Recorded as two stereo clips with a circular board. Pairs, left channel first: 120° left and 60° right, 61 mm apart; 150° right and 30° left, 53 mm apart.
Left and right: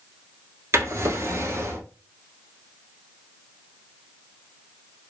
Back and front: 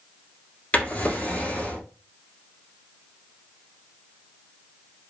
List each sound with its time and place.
0.7 s a drawer: 95° right, 1.0 m